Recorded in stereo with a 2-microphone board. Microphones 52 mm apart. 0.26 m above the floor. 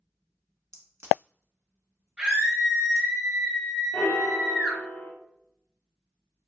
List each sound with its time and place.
0.7 s a crack: 70° right (ahead or behind), 0.8 m
2.2 s a scream: 20° right (ahead or behind), 1.2 m
3.9 s a piano: 50° left (ahead or behind), 0.5 m